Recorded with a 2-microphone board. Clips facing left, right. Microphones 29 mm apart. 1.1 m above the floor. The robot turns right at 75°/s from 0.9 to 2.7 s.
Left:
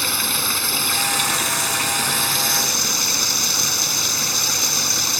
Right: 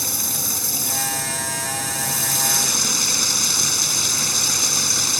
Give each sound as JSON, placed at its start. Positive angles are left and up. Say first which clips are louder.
{"t": 0.0, "sound": "running water", "louder": "left 5 dB", "azimuth_deg": 40}